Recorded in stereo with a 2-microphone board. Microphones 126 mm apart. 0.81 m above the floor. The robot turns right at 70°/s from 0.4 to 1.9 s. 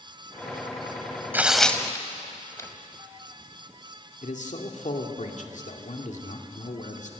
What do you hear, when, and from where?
1.3 s tearing paper: 15° right (ahead or behind), 1.5 m; by 2.7 s 20° left (ahead or behind), 1.5 m
4.2 s a man speaking: 75° left (ahead or behind), 2 m